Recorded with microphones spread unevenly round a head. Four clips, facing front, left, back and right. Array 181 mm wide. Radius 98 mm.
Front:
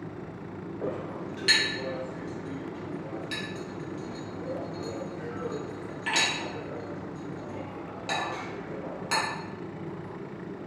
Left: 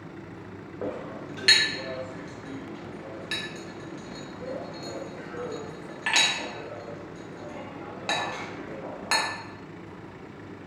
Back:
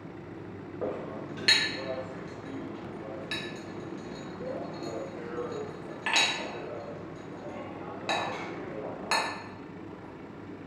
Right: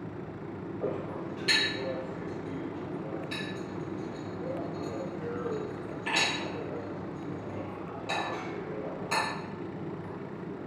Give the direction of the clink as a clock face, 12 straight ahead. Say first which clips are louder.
Left 1 dB, even; 8 o'clock.